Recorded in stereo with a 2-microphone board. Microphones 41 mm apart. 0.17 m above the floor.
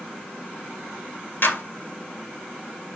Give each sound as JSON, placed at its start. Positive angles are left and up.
{"t": 1.4, "sound": "a clap", "side_deg": 55, "distance_m": 2.0}